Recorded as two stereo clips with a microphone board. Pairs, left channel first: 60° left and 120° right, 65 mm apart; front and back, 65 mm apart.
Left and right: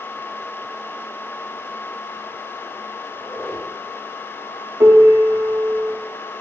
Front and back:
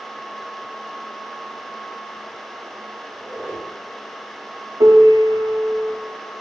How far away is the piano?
About 0.6 m.